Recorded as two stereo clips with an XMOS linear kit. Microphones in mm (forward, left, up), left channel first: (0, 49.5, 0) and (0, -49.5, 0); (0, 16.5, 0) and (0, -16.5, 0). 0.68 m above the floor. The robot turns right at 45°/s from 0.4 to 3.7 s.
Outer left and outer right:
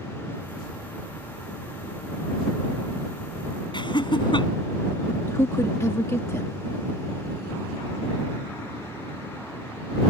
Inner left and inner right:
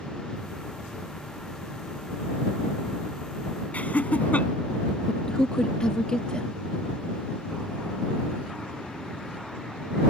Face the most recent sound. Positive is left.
turn(degrees=30)  # may be behind; listen again after turning